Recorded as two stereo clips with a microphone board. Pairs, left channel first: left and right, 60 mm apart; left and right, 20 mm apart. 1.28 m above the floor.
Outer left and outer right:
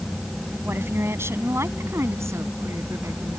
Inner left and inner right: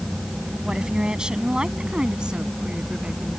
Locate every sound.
0.6 s a woman speaking: 40° right (ahead or behind); by 3.4 s 55° right (ahead or behind)